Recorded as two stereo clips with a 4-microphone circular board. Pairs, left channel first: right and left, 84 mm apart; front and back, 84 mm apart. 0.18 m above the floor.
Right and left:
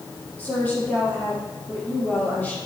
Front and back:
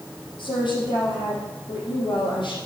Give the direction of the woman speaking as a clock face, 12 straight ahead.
1 o'clock.